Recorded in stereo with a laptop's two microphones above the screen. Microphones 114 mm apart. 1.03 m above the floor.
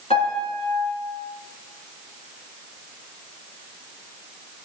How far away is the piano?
About 2 m.